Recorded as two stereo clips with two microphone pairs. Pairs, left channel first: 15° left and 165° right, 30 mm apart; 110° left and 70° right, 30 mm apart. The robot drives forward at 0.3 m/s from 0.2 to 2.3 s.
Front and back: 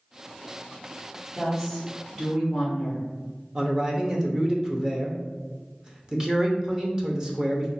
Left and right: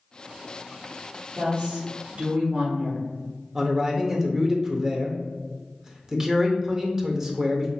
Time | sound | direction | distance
1.3 | a woman speaking | 80° right | 1.6 m
3.5 | a man speaking | 120° right | 0.6 m